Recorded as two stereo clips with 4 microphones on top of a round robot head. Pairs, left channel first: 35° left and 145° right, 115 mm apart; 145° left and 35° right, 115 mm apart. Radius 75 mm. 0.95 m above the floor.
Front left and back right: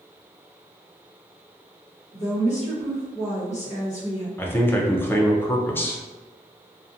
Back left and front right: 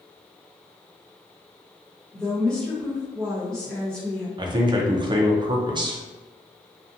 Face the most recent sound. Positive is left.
turn(degrees=-25)